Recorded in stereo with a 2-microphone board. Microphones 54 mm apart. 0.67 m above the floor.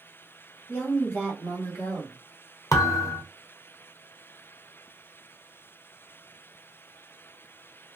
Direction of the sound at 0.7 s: 45° left (ahead or behind).